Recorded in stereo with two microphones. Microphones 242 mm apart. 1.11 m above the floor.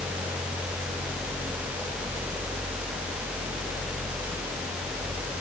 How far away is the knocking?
No knocking in this recording.